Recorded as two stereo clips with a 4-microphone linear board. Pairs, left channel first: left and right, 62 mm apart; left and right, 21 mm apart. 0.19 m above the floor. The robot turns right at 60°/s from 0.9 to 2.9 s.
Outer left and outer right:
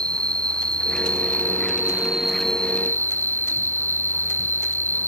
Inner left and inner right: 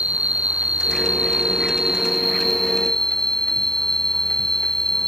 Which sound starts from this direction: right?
An insect, at 0.0 s.